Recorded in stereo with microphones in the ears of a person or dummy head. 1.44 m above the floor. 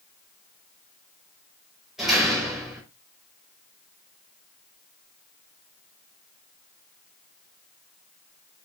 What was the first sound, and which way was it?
A door slam, 5° right (ahead or behind).